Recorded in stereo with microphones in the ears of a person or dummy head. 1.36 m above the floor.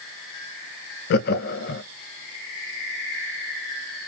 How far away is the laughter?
About 0.5 m.